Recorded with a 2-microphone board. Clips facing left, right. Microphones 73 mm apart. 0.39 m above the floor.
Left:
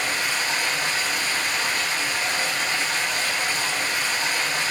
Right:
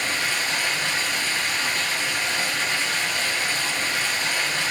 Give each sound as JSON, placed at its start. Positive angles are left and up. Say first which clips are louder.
{"t": 0.0, "sound": "running water", "louder": "even", "side_deg": 40, "distance_m": 2.5}